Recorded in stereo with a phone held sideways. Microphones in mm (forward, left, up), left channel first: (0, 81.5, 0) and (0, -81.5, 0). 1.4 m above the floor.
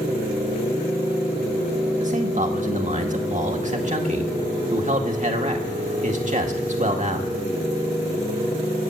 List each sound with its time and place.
2.0 s a man speaking: 45° right (ahead or behind), 1.8 m